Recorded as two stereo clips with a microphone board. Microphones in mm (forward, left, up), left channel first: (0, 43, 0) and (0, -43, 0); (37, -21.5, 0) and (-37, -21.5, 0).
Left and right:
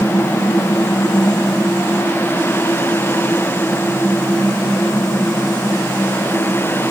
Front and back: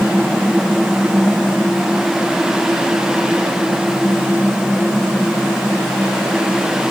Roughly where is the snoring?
I don't hear snoring.